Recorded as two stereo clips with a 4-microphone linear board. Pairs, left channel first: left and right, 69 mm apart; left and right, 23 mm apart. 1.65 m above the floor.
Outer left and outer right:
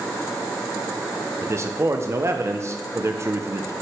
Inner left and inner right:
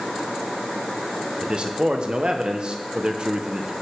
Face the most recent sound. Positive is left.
turn(degrees=-40)  # may be behind; listen again after turning